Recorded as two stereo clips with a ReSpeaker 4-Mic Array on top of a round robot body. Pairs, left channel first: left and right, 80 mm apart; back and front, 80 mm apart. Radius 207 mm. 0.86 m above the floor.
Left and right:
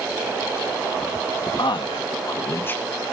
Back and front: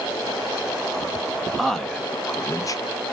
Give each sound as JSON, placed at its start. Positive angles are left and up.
{"t": 1.6, "sound": "a man speaking", "azimuth_deg": 90, "distance_m": 1.8}